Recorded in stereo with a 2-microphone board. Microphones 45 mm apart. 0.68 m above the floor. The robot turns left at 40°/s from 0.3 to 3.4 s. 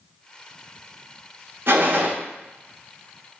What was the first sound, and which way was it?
A gunshot, 60° right (ahead or behind).